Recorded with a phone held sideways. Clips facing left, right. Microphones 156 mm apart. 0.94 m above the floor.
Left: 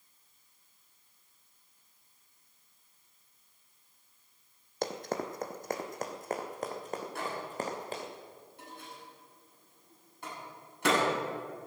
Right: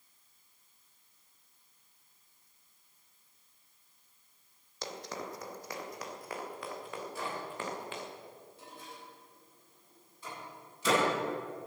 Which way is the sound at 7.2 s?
70° left (ahead or behind).